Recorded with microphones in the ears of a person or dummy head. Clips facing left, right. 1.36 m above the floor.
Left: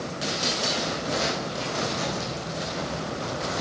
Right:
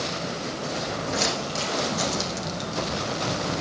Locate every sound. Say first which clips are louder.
0.8 s footsteps: right 2 dB; 70° right (ahead or behind), 5.5 m; by 3.6 s 65° right (ahead or behind), 3 m